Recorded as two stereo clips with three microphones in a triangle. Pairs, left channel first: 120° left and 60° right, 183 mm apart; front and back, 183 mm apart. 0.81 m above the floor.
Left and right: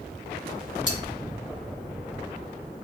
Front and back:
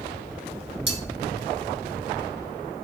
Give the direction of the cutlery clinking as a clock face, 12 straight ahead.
7 o'clock.